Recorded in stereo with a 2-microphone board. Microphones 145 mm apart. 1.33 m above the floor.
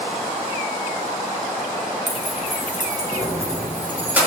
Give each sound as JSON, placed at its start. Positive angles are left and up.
{"t": 2.1, "sound": "keys jangling", "side_deg": -55, "distance_m": 0.8}